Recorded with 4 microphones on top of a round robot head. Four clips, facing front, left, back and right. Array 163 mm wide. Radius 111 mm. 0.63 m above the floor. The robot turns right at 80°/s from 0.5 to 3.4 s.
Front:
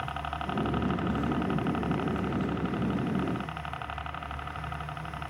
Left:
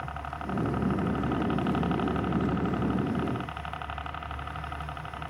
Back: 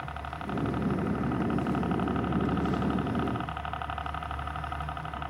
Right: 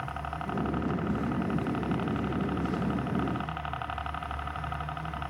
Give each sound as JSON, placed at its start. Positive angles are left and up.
{"t": 0.0, "sound": "a helicopter", "azimuth_deg": -10}